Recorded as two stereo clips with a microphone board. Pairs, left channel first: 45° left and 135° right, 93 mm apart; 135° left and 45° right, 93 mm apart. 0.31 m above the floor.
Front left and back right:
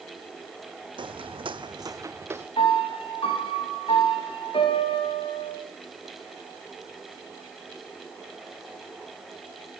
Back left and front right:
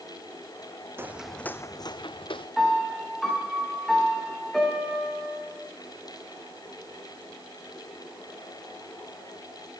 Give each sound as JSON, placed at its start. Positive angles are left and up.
{"t": 1.0, "sound": "footsteps", "azimuth_deg": -110, "distance_m": 1.0}
{"t": 2.6, "sound": "a piano", "azimuth_deg": 50, "distance_m": 8.5}